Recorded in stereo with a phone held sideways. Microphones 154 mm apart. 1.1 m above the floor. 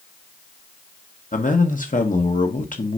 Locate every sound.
1.3 s a man speaking: 60° left (ahead or behind), 1.4 m